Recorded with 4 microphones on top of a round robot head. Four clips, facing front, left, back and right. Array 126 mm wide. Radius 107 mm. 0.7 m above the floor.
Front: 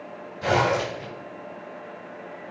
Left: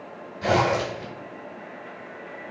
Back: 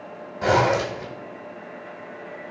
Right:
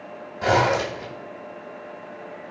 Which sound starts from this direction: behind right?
A zipper, at 0.4 s.